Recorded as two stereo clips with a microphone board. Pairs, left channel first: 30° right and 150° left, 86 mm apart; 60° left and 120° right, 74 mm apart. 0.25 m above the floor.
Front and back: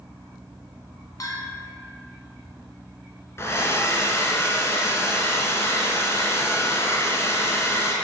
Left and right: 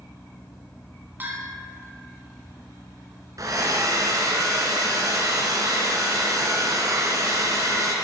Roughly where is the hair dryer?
Right.